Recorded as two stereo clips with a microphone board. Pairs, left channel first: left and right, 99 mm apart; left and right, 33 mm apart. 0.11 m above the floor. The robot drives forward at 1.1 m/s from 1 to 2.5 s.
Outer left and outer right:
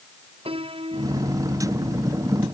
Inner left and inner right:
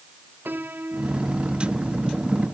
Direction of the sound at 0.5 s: 70° right (ahead or behind).